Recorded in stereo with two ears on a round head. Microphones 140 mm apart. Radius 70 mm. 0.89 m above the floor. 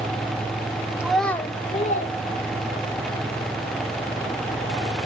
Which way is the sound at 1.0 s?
5° right (ahead or behind).